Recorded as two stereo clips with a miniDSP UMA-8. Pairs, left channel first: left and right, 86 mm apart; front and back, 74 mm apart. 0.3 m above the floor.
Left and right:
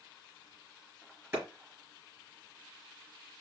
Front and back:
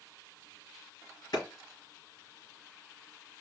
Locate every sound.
1.3 s a clap: 25° right, 3.5 m